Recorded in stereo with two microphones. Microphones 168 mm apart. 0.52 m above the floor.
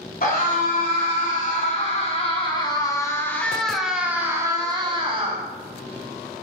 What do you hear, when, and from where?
0.2 s a scream: 60° left (ahead or behind), 2 m; by 5.4 s 35° right (ahead or behind), 1.5 m